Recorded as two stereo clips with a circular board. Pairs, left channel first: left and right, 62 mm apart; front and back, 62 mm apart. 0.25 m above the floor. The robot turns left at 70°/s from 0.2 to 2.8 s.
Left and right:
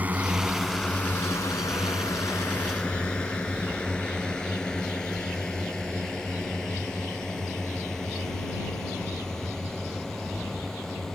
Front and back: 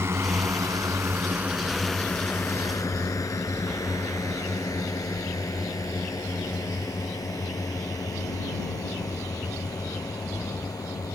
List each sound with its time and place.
0.0 s a drone: 145° right; by 11.2 s 5° left